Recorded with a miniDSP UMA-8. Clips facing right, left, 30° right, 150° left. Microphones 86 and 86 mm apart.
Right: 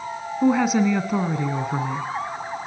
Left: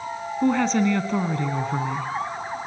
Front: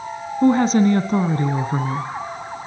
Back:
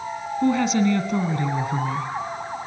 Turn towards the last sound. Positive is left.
turn(degrees=-15)